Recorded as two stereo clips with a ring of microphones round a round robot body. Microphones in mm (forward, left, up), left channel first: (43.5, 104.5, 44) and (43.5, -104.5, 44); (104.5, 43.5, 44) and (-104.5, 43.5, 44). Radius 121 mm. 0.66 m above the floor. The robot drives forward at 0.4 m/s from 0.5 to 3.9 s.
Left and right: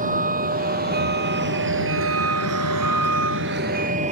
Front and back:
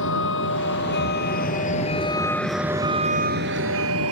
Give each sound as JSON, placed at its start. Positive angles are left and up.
{"t": 0.0, "sound": "a vehicle", "azimuth_deg": -40}